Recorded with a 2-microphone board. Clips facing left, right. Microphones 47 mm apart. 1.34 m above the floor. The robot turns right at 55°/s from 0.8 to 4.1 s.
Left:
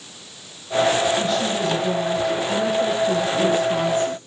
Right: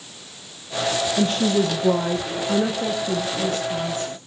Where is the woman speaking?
110° right, 0.9 m; by 4.2 s 55° left, 0.9 m.